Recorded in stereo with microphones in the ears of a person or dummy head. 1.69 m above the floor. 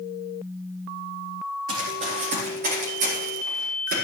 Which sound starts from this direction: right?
Running footsteps, at 1.7 s.